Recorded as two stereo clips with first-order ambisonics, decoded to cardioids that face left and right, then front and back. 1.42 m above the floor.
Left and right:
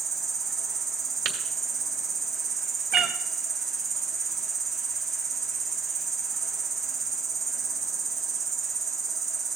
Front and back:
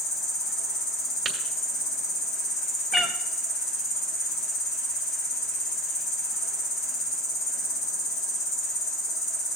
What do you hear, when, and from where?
0.0 s an insect: 25° right, 2.5 m
1.2 s tapping: 110° right, 1.4 m
2.9 s a cat meowing: 65° right, 0.6 m